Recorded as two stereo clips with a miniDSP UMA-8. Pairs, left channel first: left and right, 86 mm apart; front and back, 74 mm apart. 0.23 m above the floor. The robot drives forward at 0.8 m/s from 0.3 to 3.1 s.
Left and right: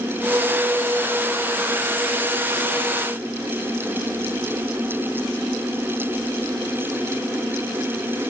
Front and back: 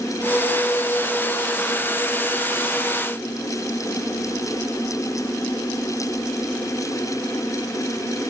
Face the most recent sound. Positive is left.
No sound to turn to.